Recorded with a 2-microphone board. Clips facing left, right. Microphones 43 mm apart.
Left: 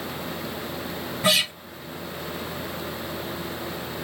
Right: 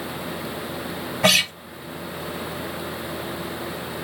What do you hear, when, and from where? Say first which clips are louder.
1.2 s a guitar: right 3 dB; 80° right, 1.5 m